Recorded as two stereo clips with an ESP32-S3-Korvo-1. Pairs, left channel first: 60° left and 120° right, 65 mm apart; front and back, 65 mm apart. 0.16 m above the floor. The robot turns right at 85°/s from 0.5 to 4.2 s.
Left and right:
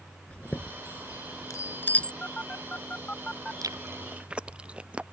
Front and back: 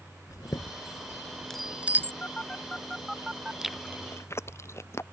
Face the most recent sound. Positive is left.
turn(degrees=-50)